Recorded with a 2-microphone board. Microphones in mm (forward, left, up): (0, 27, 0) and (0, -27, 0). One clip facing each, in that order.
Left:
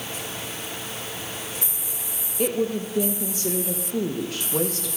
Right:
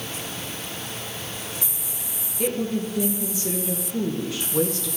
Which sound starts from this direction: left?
A woman speaking, at 2.4 s.